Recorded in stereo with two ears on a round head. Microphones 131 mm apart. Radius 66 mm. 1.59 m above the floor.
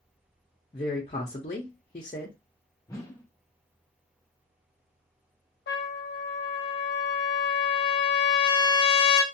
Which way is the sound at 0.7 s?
40° left (ahead or behind).